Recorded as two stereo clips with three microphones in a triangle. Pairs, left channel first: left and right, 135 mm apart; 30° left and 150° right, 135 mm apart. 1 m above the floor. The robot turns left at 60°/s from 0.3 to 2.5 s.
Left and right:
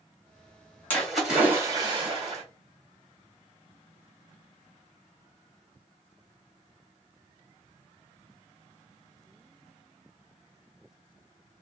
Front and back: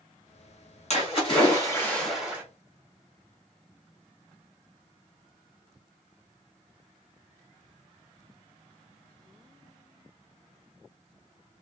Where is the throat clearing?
No throat clearing in this recording.